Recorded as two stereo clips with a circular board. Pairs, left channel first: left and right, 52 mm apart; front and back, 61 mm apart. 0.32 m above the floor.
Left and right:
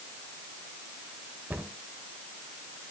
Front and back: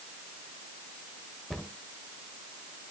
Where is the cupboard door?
90° right, 1.3 m.